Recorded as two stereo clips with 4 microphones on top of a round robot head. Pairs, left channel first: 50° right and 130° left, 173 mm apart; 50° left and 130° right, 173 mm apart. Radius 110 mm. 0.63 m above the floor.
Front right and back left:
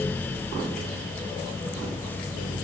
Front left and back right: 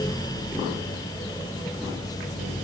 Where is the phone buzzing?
I don't hear a phone buzzing.